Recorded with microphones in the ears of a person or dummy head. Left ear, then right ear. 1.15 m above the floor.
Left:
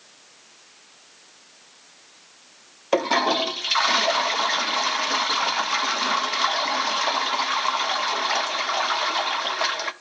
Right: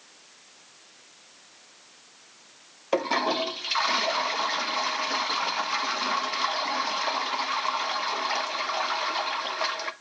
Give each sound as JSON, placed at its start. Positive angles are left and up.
{"t": 2.9, "sound": "a toilet flushing", "side_deg": 10, "distance_m": 0.6}